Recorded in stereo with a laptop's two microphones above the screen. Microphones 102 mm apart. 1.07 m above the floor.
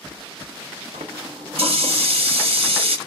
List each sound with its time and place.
0.9 s a running tap: 75° right (ahead or behind), 1.2 m